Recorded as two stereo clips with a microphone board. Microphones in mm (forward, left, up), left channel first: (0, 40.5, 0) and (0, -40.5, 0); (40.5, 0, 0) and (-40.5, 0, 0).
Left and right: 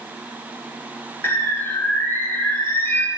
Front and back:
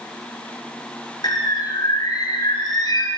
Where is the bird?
30° left, 1.0 m.